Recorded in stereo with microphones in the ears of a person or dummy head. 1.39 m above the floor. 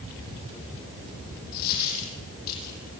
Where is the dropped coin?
50° left (ahead or behind), 9 m.